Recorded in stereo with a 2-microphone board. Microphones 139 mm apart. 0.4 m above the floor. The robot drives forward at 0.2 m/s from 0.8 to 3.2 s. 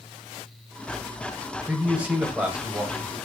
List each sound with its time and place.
1.7 s a man speaking: 10° right (ahead or behind), 1.3 m